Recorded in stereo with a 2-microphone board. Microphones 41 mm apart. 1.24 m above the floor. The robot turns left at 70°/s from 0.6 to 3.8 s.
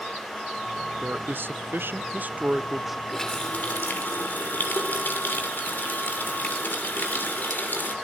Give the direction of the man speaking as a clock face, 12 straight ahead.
1 o'clock.